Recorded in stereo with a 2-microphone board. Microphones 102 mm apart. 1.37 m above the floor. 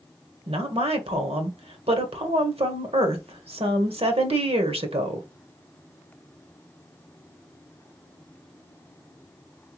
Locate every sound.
0.5 s a woman speaking: 80° right, 1.3 m